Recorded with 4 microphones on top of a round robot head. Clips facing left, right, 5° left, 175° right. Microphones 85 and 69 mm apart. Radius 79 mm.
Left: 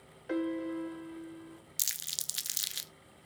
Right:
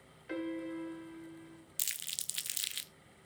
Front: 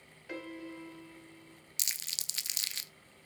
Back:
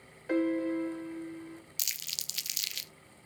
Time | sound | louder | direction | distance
0.3 | a piano | left 5 dB, back 14 dB | 145° left | 0.8 m
1.8 | crumpling | left 1 dB, even | 35° left | 0.7 m